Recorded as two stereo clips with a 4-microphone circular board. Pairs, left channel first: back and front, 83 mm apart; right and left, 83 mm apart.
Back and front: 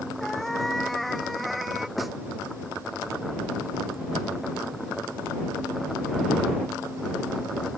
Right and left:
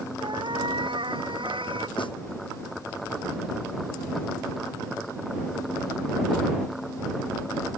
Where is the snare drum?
90° right.